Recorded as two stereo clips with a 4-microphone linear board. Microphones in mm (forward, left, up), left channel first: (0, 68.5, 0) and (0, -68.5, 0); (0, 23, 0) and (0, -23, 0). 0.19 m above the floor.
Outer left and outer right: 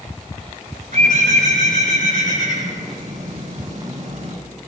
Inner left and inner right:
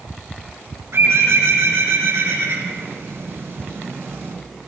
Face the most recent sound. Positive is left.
turn(degrees=-80)